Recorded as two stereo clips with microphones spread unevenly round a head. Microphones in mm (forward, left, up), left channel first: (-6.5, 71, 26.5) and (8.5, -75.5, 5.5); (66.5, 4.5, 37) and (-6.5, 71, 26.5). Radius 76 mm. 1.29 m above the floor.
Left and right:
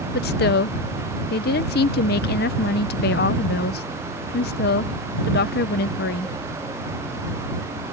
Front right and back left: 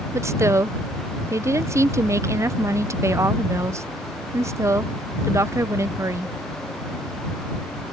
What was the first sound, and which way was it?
A woman speaking, 85° left.